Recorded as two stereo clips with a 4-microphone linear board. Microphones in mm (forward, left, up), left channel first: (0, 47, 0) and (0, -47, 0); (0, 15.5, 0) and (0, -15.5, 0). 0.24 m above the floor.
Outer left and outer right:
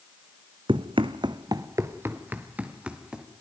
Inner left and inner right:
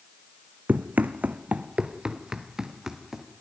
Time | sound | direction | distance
0.7 | running footsteps | 70° right (ahead or behind) | 0.8 m